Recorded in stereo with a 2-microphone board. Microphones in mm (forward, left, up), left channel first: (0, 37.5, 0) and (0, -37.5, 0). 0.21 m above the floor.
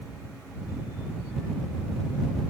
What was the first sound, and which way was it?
Only background noise.